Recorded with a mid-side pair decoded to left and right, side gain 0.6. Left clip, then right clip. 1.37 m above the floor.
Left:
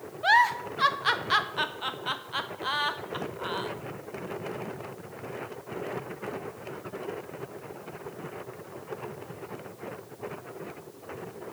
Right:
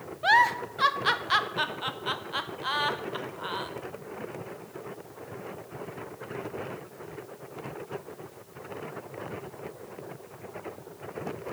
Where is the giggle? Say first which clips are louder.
Even; 5° right, 0.6 m.